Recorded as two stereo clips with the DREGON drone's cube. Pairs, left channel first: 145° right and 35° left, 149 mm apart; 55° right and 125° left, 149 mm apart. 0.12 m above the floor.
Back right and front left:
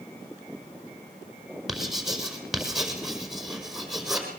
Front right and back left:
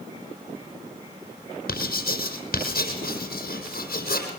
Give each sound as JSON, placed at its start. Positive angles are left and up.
{"t": 1.7, "sound": "writing", "azimuth_deg": -55, "distance_m": 4.5}